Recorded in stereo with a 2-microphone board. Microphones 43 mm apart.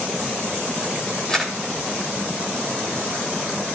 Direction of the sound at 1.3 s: 15° left (ahead or behind).